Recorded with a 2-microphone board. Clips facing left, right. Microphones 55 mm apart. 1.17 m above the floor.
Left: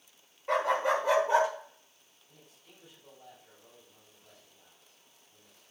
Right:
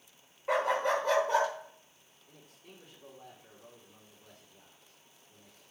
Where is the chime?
No chime in this recording.